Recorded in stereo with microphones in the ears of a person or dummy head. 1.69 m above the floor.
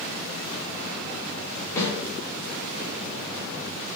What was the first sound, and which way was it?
A snare drum, 20° left (ahead or behind).